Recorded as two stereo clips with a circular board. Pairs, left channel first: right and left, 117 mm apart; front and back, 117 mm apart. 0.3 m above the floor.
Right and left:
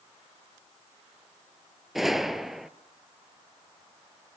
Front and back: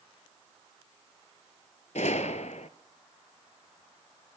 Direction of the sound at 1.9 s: Straight ahead.